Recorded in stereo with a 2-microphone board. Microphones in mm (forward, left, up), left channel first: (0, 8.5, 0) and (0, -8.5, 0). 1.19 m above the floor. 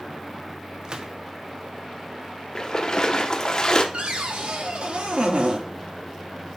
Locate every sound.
0.8 s a gunshot: 45° right (ahead or behind), 0.7 m
2.5 s a splash: 40° left (ahead or behind), 0.9 m
3.9 s a cupboard door: 60° right (ahead or behind), 1.0 m